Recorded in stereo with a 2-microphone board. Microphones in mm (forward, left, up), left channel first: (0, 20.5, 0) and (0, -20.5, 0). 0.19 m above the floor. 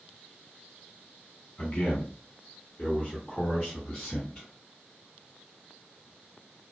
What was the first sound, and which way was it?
A man speaking, 25° left (ahead or behind).